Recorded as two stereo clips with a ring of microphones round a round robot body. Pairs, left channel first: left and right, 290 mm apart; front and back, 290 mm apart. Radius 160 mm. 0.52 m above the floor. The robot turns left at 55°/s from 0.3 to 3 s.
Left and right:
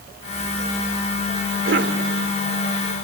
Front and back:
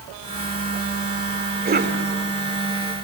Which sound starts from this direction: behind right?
A cough, at 1.6 s.